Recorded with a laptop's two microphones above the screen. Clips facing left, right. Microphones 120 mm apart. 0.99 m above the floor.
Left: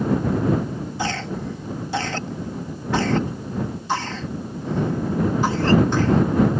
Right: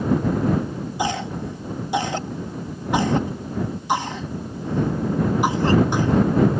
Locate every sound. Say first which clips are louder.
1.0 s a cough: right 3 dB; 15° right (ahead or behind)